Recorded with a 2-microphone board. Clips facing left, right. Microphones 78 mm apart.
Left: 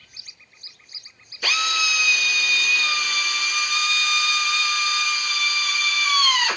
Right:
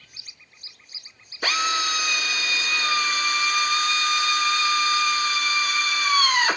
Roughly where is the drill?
Right.